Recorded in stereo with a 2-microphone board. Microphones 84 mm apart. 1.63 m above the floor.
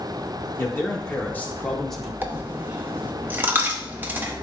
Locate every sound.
0.6 s a man speaking: 30° left (ahead or behind), 2.5 m; by 2.1 s 5° right (ahead or behind), 1.3 m
2.2 s a dropped coin: 25° right (ahead or behind), 1.1 m